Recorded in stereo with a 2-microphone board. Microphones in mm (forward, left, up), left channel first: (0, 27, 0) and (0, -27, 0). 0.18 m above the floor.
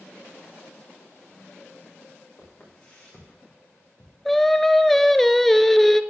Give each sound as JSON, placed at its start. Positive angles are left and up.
{"t": 2.4, "sound": "footsteps", "side_deg": 25, "distance_m": 6.0}
{"t": 4.2, "sound": "singing", "side_deg": 5, "distance_m": 0.5}